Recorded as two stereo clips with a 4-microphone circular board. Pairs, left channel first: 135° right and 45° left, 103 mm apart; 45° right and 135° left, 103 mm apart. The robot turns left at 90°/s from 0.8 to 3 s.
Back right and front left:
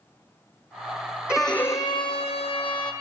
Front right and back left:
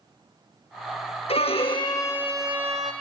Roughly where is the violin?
Ahead right.